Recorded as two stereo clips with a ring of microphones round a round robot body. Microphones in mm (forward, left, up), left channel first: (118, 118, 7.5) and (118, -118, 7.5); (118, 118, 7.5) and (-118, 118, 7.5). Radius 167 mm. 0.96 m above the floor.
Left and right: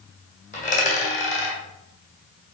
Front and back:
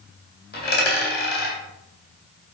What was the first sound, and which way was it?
A dropped coin, 35° left.